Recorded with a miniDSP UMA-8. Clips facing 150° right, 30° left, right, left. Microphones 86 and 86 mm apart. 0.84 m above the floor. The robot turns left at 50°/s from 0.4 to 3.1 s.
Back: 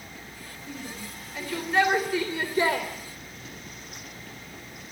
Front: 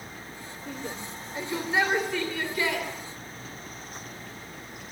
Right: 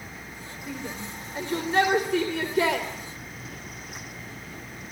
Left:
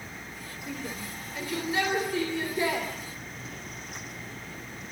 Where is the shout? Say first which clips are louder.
Front 2 dB, right 2 dB; 5° left, 3 m; by 2.9 s 105° right, 3 m.